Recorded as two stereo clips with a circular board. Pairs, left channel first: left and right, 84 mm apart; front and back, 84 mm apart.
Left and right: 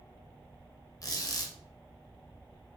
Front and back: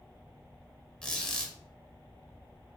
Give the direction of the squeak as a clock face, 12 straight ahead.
9 o'clock.